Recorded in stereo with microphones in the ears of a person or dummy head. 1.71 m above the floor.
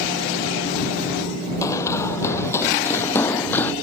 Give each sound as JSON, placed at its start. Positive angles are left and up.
{"t": 1.6, "sound": "running footsteps", "side_deg": 20}